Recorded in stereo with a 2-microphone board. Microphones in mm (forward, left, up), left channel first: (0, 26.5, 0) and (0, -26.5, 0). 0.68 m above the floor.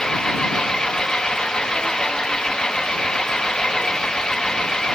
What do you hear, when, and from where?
0.0 s an engine running: 10° left (ahead or behind)